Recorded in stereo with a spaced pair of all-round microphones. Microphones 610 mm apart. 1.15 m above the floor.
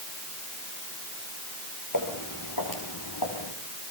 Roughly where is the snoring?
No snoring in this recording.